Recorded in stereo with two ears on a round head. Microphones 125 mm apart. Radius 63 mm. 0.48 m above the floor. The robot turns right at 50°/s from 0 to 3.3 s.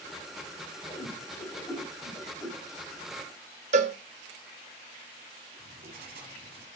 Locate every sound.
0.9 s a whoosh: 55° left (ahead or behind), 3 m; by 2.6 s 15° right (ahead or behind), 3 m
3.7 s a cowbell: 50° right (ahead or behind), 0.6 m
5.6 s writing: 70° right (ahead or behind), 1.3 m